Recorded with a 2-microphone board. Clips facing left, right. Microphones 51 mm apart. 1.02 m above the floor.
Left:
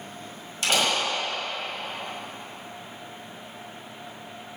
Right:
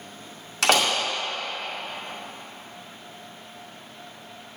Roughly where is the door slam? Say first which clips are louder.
Right 3 dB; right.